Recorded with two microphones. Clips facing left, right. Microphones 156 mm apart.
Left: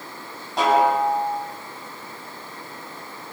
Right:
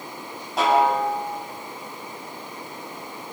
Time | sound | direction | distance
0.6 | a snare drum | centre (ahead or behind) | 9.5 m